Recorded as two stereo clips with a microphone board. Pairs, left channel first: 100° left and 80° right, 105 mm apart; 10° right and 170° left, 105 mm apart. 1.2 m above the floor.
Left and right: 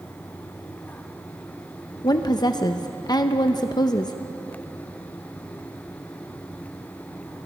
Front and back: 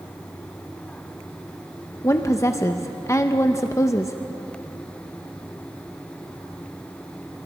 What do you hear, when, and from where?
2.0 s a woman speaking: 50° left, 0.7 m